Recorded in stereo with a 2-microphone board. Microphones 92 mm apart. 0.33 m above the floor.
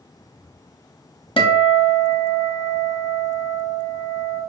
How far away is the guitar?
About 0.7 m.